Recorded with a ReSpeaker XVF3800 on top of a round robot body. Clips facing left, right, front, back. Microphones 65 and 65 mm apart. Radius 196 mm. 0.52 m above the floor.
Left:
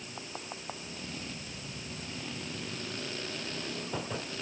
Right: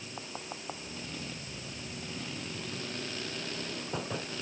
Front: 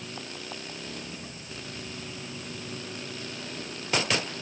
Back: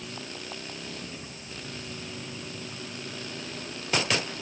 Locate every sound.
Only background noise.